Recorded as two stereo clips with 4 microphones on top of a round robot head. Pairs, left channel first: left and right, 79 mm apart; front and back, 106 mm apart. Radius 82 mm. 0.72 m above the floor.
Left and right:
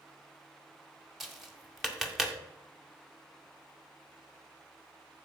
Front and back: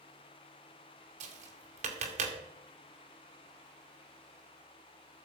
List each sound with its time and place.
1.2 s tapping: 175° right, 1.9 m